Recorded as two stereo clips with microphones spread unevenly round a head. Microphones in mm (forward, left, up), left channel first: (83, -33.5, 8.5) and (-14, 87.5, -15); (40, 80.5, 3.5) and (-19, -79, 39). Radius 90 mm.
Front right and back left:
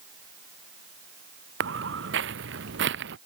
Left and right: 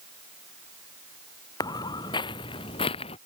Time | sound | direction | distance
1.6 | footsteps | 145° left | ?